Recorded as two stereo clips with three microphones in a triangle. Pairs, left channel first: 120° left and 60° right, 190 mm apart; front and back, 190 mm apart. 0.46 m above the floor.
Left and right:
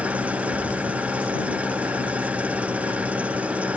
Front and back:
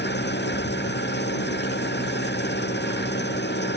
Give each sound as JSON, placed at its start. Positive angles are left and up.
{"t": 0.0, "sound": "an engine running", "azimuth_deg": 25}